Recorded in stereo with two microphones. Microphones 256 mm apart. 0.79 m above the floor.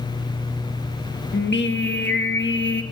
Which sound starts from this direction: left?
Singing, at 1.3 s.